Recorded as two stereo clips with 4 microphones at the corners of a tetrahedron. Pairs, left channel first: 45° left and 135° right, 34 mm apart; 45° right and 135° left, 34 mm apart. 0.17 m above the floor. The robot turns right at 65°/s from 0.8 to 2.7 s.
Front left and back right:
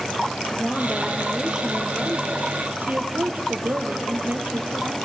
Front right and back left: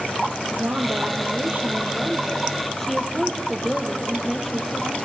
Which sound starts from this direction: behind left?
A woman speaking, at 0.5 s.